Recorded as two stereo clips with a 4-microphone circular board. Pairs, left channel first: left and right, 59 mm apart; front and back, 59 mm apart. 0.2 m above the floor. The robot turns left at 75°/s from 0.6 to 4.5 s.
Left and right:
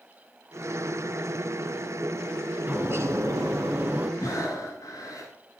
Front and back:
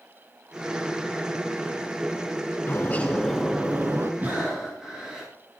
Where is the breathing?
120° left, 10 m; by 5.3 s 100° left, 10 m.